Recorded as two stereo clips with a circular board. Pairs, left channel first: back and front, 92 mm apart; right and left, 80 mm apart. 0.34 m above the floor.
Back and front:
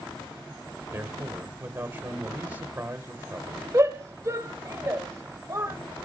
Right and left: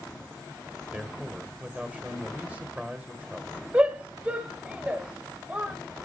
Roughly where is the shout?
Ahead left.